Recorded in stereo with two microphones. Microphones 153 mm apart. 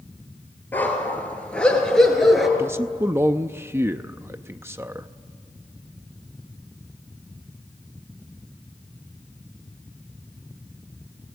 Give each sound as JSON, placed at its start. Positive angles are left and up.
{"t": 0.7, "sound": "a dog barking", "side_deg": 10, "distance_m": 4.0}
{"t": 2.6, "sound": "a man speaking", "side_deg": -15, "distance_m": 0.5}